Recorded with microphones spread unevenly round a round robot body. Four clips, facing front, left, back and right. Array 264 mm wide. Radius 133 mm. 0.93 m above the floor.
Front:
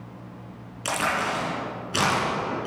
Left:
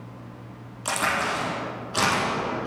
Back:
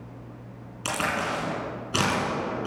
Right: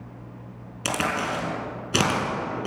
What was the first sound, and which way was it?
A crack, 100° right.